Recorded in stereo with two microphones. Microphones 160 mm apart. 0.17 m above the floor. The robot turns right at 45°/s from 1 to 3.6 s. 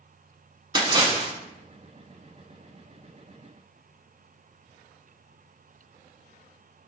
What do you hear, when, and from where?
0.8 s a splash: 30° right (ahead or behind), 0.5 m; by 1.3 s 40° right (ahead or behind), 0.5 m